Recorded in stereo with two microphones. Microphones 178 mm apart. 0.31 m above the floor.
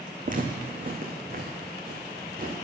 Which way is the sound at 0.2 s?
50° right (ahead or behind).